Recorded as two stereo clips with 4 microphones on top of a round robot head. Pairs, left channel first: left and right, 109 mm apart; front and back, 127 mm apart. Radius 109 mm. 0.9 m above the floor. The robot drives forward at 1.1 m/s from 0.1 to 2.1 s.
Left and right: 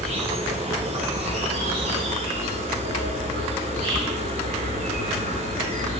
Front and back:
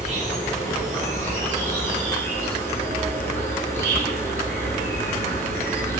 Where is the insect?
130° right, 9 m; by 6.0 s 140° right, 10.5 m.